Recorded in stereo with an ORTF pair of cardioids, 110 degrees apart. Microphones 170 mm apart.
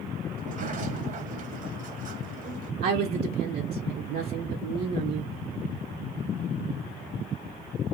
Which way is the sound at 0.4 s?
55° right.